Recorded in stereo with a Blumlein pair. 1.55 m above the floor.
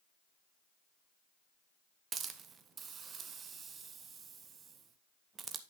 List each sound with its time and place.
2.1 s a hiss: 20° right, 0.9 m